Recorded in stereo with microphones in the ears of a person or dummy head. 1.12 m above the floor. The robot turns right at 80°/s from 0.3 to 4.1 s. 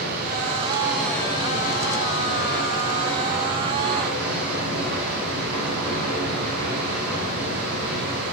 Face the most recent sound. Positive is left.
turn(degrees=-110)